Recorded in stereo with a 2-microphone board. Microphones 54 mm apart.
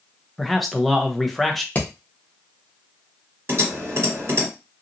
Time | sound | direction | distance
0.4 | a man speaking | centre (ahead or behind) | 0.5 m
1.8 | hammering | 30° left (ahead or behind) | 0.9 m
3.5 | typing on a keyboard | 60° right (ahead or behind) | 1.9 m